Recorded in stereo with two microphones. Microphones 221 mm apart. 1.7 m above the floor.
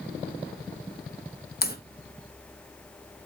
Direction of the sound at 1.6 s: 45° left (ahead or behind).